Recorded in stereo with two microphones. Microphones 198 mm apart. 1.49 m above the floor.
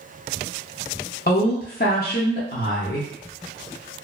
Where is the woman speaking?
50° left (ahead or behind), 0.5 m.